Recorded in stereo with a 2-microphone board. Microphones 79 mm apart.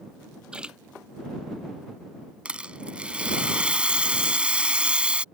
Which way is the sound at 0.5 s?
10° right (ahead or behind).